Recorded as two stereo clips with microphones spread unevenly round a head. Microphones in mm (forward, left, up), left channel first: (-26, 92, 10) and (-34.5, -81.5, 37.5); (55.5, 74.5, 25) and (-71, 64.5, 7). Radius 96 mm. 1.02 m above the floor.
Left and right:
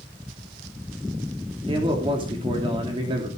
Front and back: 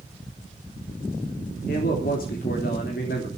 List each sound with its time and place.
1.7 s a man speaking: 25° right, 3 m